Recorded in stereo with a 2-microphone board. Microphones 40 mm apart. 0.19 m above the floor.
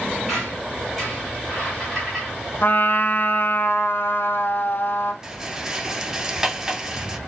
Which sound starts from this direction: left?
A trumpet, at 2.6 s.